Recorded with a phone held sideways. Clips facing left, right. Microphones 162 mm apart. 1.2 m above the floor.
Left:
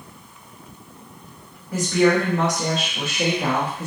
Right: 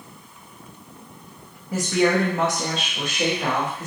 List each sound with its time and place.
1.7 s a woman speaking: 20° right (ahead or behind), 1.2 m; by 3.9 s 30° left (ahead or behind), 1.4 m